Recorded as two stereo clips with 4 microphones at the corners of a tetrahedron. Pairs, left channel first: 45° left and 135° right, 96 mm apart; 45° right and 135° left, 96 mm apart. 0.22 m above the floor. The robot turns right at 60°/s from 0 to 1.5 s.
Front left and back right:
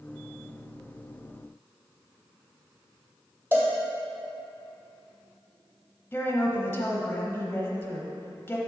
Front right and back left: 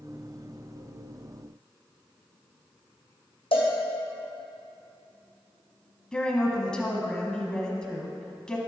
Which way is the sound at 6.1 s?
25° left.